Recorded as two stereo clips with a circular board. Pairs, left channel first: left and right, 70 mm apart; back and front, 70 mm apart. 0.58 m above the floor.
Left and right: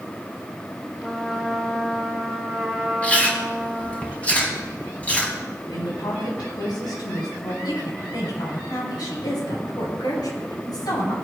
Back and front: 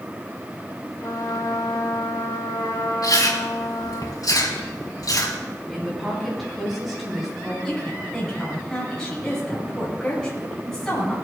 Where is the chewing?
160° left, 4.5 m.